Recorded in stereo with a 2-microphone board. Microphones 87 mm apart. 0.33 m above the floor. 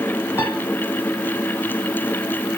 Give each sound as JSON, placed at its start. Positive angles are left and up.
{"t": 0.4, "sound": "a piano", "side_deg": 25, "distance_m": 1.3}